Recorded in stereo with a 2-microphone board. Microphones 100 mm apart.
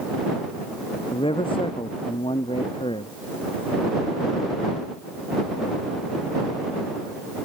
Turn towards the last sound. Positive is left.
turn(degrees=60)  # may be behind; listen again after turning